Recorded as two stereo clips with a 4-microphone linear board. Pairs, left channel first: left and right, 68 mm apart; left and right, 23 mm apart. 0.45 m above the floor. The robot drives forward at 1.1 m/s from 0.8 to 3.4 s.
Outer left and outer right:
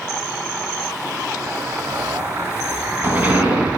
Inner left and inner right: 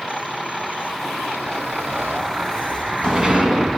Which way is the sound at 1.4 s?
50° right (ahead or behind).